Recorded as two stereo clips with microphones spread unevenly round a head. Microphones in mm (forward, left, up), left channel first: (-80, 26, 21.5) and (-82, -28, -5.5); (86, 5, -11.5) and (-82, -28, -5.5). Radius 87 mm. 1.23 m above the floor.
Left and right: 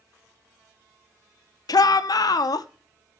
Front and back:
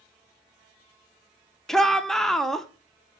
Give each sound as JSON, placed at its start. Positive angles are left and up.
{"t": 1.7, "sound": "a shout", "azimuth_deg": 95, "distance_m": 0.8}